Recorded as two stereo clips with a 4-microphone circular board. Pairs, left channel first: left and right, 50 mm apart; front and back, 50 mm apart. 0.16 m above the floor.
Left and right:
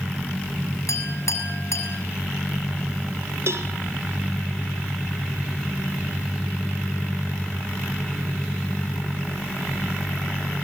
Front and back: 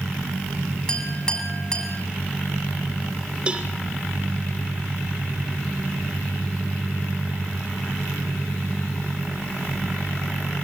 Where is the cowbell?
115° right, 2.5 m.